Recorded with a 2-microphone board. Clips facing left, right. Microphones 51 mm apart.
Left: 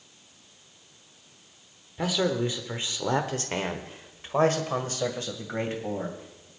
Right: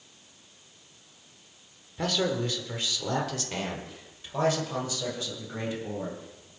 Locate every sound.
2.0 s a man speaking: 10° left (ahead or behind), 1.2 m; by 6.5 s 50° left (ahead or behind), 3 m